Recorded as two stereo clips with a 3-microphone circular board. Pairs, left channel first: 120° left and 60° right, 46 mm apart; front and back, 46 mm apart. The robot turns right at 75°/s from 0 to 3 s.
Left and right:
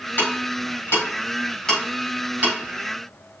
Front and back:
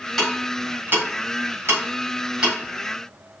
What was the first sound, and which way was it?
Ticking, 85° left.